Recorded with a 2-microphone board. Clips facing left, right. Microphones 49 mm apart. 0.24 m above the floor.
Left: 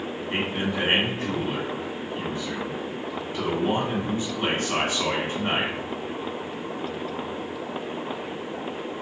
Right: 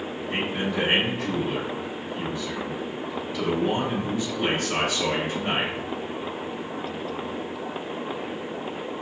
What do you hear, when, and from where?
0.3 s a man speaking: 45° left (ahead or behind), 1.8 m